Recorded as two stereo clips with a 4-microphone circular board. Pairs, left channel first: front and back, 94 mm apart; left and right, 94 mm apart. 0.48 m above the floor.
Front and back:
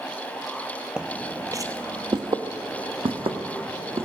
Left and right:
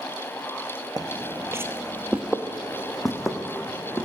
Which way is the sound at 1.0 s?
105° right.